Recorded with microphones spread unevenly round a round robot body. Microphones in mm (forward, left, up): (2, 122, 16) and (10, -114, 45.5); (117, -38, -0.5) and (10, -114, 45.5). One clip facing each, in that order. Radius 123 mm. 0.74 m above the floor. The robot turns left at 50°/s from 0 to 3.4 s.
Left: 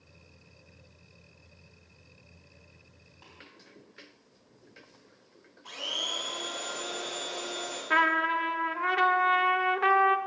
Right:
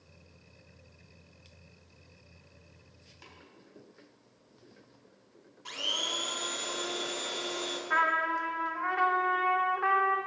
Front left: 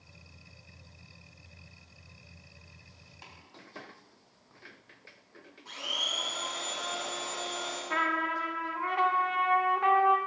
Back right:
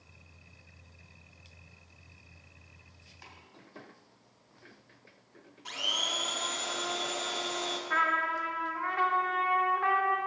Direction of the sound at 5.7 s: 150° right.